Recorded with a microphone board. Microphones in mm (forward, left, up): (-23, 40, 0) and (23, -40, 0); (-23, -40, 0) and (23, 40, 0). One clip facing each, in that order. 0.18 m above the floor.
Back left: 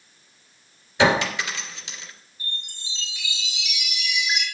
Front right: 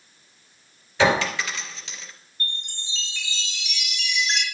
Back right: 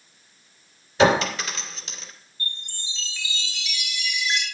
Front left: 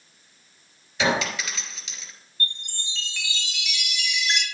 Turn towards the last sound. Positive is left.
turn(degrees=35)